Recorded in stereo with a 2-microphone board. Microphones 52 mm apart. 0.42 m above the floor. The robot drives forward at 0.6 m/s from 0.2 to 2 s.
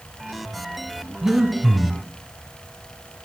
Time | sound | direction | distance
1.2 | breathing | 5° right (ahead or behind) | 1.2 m